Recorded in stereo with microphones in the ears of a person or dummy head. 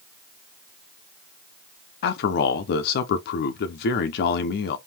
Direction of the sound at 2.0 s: 55° left (ahead or behind).